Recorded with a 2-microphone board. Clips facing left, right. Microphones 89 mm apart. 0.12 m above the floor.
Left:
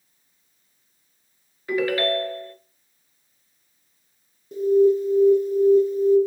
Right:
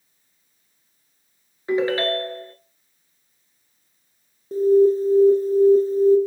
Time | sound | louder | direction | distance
1.7 | a ringtone | right 1 dB | 25° right (ahead or behind) | 1.5 m
4.5 | an alarm | right 2 dB | 35° right (ahead or behind) | 0.9 m